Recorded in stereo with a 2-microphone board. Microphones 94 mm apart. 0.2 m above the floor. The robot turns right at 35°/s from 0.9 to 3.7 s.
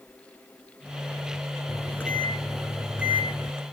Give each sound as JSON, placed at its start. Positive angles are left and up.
{"t": 1.7, "sound": "a microwave", "azimuth_deg": 150, "distance_m": 2.5}